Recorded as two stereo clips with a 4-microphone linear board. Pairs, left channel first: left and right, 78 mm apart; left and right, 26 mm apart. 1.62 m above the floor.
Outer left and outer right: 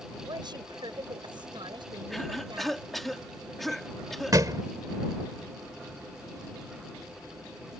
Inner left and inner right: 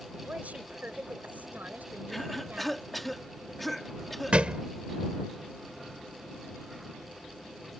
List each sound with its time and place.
0.2 s a woman speaking: 65° right (ahead or behind); by 2.8 s 80° right
2.1 s a cough: centre (ahead or behind)
4.3 s a thud: 45° right (ahead or behind)